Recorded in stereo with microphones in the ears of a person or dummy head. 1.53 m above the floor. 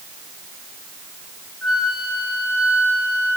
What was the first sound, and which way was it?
A flute, centre (ahead or behind).